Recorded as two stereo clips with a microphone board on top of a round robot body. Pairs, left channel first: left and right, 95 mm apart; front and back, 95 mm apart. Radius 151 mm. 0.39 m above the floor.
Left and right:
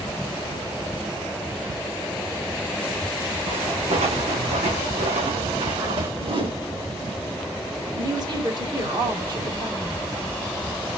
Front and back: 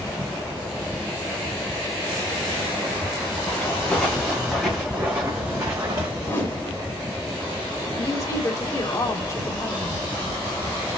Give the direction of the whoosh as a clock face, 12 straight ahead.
2 o'clock.